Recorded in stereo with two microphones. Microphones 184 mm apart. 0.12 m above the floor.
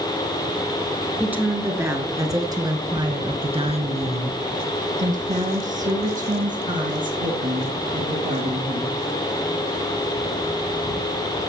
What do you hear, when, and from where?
1.2 s a woman speaking: 10° right (ahead or behind), 2 m; by 8.9 s 45° right (ahead or behind), 3.5 m